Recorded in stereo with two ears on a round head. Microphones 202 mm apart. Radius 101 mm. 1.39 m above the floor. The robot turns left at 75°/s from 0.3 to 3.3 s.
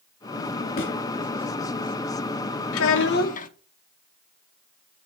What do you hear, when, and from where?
0.8 s a thud: 45° left (ahead or behind), 1.8 m
2.7 s a child speaking: 85° left, 0.9 m; by 3.5 s 40° left, 0.9 m